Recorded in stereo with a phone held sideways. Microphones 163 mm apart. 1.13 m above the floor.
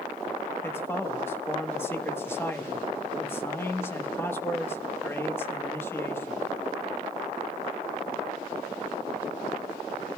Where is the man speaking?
15° left (ahead or behind), 1.1 m.